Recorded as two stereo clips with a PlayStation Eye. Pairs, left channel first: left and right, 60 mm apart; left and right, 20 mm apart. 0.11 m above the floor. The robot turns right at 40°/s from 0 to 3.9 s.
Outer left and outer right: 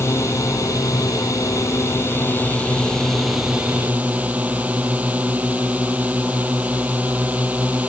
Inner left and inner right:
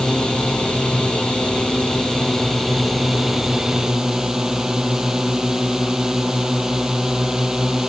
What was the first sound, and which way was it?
A drone, 50° left.